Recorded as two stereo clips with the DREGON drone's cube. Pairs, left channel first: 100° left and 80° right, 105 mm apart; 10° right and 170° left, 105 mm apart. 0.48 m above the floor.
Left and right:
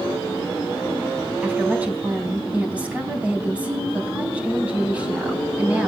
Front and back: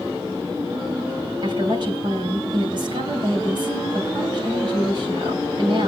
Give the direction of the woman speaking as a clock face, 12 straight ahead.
5 o'clock.